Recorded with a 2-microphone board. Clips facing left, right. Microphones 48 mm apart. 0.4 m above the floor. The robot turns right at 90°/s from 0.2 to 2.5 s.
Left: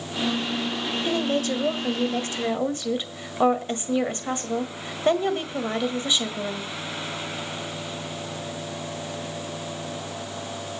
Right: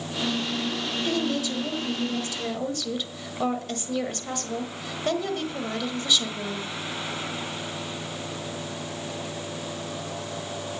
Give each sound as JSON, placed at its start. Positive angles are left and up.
{"t": 1.1, "sound": "a woman speaking", "azimuth_deg": 20, "distance_m": 1.5}